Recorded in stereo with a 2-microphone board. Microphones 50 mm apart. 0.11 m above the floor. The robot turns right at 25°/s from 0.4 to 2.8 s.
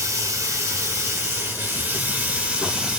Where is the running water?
70° right, 1.3 m; by 3.0 s 10° right, 1.3 m.